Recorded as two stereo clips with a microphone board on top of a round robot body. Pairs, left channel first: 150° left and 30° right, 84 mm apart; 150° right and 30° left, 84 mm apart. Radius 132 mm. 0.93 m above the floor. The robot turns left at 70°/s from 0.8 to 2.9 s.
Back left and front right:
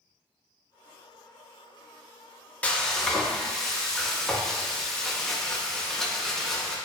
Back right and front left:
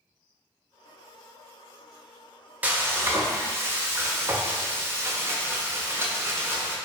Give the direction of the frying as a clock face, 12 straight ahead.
9 o'clock.